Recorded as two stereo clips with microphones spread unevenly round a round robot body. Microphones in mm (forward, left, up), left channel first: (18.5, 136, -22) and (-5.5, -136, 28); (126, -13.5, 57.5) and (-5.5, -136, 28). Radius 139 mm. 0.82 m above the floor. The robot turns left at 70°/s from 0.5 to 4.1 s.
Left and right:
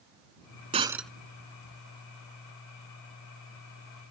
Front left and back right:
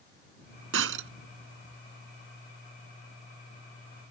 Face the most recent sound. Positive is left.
turn(degrees=-35)